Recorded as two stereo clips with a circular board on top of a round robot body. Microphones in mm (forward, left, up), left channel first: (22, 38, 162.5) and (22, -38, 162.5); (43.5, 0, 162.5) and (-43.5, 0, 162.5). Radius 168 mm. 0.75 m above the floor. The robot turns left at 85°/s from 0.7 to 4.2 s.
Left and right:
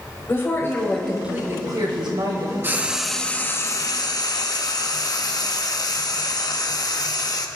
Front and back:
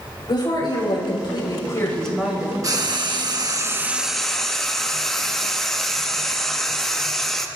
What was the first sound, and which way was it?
A woman speaking, 30° left.